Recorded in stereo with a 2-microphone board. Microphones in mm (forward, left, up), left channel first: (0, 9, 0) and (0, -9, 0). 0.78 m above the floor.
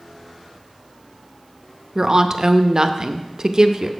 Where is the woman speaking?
30° right (ahead or behind), 0.5 m.